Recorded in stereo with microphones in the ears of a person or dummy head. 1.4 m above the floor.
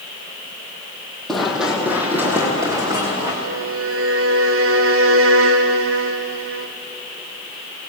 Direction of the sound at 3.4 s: 75° right (ahead or behind).